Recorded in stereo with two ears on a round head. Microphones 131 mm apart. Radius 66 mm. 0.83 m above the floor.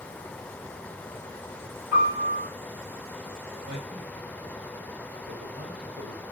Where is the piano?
15° right (ahead or behind), 6 m.